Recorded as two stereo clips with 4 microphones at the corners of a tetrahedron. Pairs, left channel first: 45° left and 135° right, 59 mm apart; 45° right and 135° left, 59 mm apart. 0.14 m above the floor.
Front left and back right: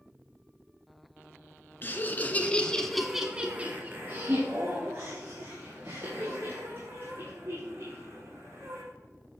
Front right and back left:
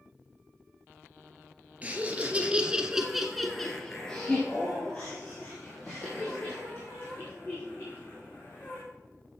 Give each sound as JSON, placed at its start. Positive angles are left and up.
{"t": 1.8, "sound": "laughter", "azimuth_deg": 80, "distance_m": 1.6}